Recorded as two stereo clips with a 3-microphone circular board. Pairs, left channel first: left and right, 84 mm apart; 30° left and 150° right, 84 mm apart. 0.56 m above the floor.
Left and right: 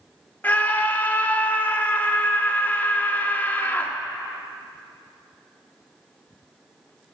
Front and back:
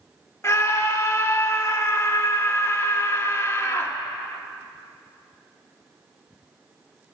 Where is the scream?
40° left, 0.8 m.